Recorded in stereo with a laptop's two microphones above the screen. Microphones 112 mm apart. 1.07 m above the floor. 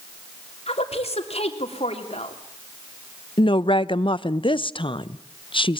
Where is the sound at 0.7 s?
65° left (ahead or behind), 3 m.